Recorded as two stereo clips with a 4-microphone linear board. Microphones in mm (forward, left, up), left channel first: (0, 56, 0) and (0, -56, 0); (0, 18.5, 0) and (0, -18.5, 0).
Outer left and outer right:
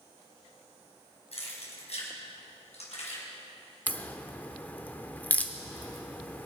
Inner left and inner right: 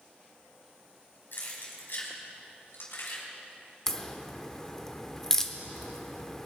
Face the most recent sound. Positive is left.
turn(degrees=15)  # may be behind; listen again after turning